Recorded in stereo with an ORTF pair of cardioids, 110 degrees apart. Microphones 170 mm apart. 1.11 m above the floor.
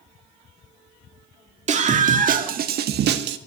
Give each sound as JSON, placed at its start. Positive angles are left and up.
{"t": 1.7, "sound": "a scream", "azimuth_deg": -40, "distance_m": 2.0}